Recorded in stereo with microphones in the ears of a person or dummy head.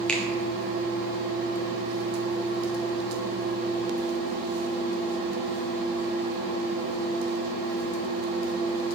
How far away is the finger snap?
About 0.7 m.